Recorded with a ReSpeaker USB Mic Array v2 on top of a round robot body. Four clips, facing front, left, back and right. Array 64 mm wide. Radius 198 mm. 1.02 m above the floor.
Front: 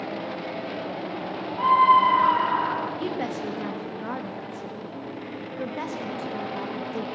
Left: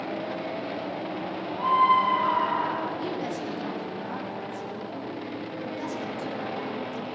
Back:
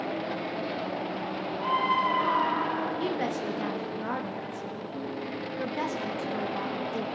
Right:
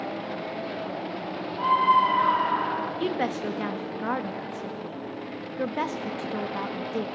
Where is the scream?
15° right, 6 m.